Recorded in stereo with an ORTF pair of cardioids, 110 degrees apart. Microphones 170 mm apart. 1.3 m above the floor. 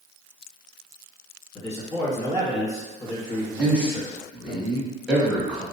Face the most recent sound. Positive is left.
turn(degrees=-5)